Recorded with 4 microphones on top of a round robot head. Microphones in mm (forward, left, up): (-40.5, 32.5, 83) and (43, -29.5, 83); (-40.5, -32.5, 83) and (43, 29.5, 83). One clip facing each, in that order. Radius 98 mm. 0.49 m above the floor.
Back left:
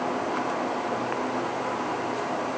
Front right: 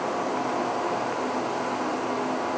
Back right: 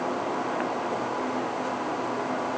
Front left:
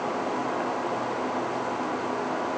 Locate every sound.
Only background noise.